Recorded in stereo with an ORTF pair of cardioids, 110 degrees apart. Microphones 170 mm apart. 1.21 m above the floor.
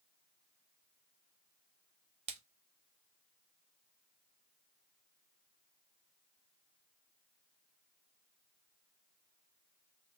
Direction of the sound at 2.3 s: 40° right.